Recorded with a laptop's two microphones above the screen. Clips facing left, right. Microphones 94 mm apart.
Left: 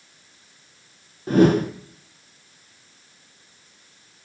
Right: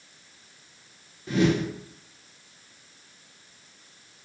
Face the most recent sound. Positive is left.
turn(degrees=50)  # may be behind; listen again after turning